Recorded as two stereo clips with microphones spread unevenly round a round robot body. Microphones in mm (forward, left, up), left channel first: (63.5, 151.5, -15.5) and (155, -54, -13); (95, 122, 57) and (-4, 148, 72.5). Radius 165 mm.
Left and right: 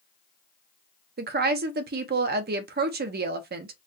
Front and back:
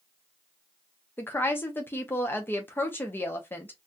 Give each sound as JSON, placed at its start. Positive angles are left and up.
{"t": 1.2, "sound": "a woman speaking", "azimuth_deg": -60, "distance_m": 0.6}